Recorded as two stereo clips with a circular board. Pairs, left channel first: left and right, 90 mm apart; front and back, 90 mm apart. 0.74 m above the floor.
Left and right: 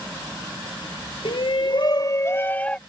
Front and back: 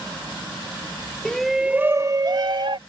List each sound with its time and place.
1.2 s a shout: 80° left; by 2.8 s 165° left